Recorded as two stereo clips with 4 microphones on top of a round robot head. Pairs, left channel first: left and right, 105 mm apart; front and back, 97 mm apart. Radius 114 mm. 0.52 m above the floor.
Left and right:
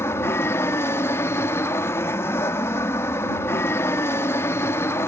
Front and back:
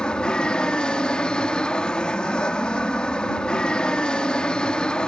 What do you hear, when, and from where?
0.0 s an aircraft: 70° left